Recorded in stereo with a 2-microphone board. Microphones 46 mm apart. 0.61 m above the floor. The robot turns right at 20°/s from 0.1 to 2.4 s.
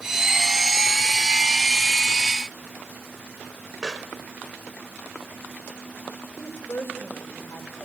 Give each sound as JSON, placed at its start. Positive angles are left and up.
{"t": 3.8, "sound": "a pop", "side_deg": -15, "distance_m": 1.7}
{"t": 6.4, "sound": "a woman speaking", "side_deg": 55, "distance_m": 3.0}